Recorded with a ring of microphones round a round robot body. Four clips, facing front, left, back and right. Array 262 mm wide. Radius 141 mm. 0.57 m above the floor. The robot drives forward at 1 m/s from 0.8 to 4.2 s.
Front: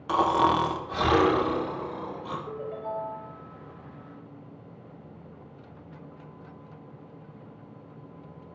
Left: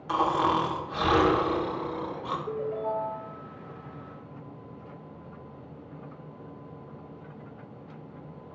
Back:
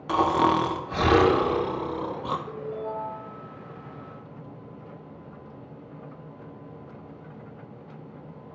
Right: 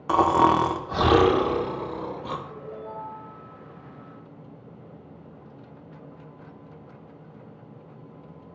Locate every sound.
0.1 s snoring: 105° right, 1.2 m; by 2.4 s 150° right, 2 m
2.5 s a ringtone: 70° left, 5.5 m; by 3.3 s 80° left, 5 m